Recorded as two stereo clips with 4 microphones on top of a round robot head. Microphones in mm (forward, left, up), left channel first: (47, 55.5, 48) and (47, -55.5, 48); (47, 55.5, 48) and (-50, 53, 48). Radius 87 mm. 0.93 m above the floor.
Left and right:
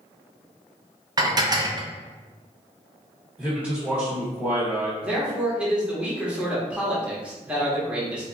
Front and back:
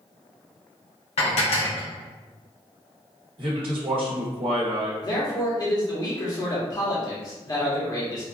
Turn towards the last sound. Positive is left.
turn(degrees=-15)